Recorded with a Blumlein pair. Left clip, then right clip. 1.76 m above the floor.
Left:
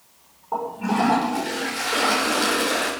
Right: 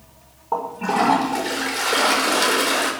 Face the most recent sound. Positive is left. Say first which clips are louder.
# right 3 dB
turn(degrees=-15)